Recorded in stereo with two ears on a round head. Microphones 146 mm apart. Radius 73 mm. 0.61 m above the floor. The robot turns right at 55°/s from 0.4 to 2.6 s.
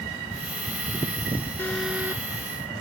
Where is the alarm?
165° left; by 2.2 s 160° right.